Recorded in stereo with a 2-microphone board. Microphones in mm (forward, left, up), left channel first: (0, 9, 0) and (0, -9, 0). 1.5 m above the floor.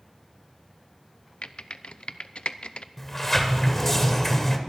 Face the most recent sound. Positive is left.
turn(degrees=20)  # may be behind; listen again after turning